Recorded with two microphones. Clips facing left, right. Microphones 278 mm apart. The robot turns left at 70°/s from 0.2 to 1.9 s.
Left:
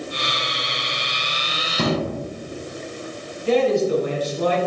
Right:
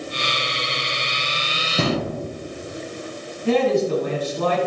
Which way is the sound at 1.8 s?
65° right (ahead or behind).